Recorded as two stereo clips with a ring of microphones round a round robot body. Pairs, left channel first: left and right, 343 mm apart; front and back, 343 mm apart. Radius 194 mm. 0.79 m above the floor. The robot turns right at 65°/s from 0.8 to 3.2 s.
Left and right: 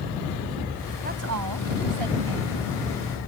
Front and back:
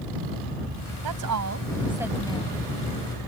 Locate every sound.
1.0 s a woman speaking: 160° right; by 2.7 s 55° right